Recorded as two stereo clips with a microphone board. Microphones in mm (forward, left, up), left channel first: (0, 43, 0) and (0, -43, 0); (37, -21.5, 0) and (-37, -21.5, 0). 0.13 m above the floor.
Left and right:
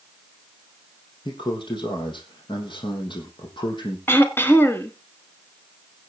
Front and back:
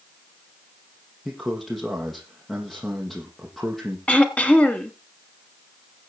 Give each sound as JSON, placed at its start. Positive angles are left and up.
{"t": 1.2, "sound": "a man speaking", "azimuth_deg": 85, "distance_m": 4.0}
{"t": 4.1, "sound": "throat clearing", "azimuth_deg": 55, "distance_m": 1.3}